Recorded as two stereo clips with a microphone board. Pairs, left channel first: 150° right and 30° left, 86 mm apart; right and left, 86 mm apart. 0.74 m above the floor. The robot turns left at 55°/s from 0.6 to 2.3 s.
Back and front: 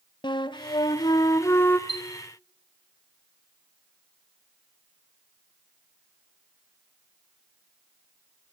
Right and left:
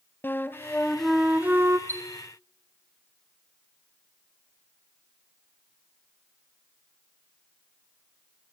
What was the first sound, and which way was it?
A flute, 155° right.